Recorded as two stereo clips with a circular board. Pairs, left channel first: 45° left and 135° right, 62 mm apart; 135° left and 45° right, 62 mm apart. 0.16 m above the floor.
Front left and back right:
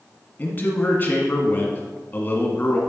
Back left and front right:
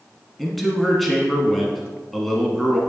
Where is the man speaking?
45° left, 1.3 m.